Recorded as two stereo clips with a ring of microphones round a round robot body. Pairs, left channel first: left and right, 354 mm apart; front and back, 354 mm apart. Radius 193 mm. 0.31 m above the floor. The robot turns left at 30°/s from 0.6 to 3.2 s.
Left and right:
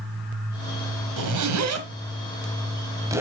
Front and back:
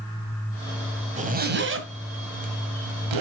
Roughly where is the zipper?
Right.